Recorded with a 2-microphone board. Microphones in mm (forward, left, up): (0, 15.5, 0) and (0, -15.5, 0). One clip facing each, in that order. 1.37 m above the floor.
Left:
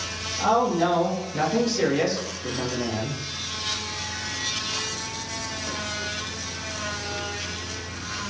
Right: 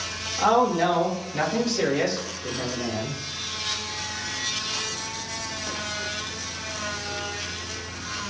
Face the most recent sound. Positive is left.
turn(degrees=35)  # may be behind; listen again after turning